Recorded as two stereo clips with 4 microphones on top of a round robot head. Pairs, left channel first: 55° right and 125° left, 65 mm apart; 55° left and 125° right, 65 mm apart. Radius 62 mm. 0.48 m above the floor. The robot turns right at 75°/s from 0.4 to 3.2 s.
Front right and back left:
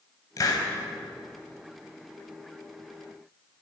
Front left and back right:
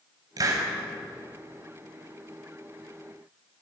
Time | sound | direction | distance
0.4 | a hiss | 90° right | 3.5 m